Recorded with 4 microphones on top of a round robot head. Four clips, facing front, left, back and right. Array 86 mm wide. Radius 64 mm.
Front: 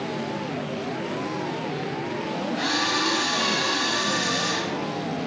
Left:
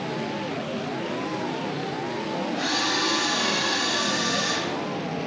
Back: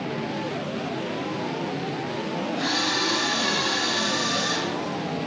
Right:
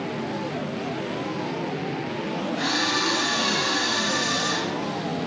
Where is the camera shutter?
50° right, 6.5 m.